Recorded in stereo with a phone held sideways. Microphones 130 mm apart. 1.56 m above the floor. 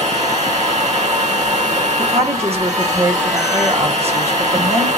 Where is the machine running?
60° right (ahead or behind), 1.7 m.